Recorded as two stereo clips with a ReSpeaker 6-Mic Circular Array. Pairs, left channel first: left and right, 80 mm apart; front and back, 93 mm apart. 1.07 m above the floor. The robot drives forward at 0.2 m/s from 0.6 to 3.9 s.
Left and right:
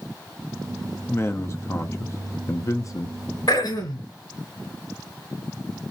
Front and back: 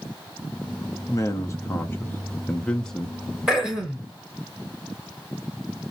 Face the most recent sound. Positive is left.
turn(degrees=100)